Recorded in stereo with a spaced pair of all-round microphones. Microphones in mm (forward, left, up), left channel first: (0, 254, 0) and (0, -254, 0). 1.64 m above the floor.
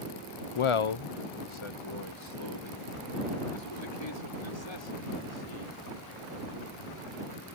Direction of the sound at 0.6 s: 70° left (ahead or behind).